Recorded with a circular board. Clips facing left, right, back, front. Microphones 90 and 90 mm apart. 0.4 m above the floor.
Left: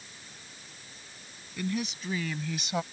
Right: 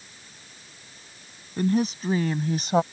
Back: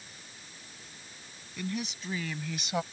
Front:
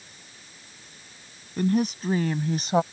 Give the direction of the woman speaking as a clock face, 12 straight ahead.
1 o'clock.